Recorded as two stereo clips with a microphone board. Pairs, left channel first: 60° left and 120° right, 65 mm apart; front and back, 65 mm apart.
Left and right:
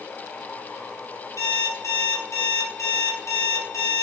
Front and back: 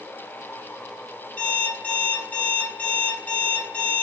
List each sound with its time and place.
1.4 s an alarm clock: 55° left, 1.2 m